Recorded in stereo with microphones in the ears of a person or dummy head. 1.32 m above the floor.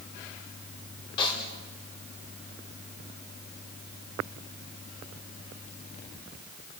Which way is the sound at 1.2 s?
30° left (ahead or behind).